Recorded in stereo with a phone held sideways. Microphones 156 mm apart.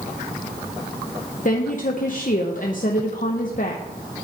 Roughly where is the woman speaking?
Left.